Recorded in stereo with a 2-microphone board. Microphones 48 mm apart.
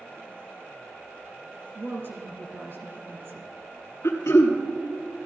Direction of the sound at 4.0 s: 75° left (ahead or behind).